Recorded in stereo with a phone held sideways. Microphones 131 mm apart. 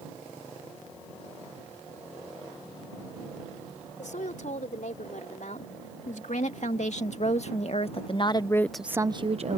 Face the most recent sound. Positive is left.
turn(degrees=-60)  # may be behind; listen again after turning